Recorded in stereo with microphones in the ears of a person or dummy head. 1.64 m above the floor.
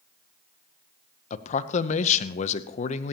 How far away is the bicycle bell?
No bicycle bell in this recording.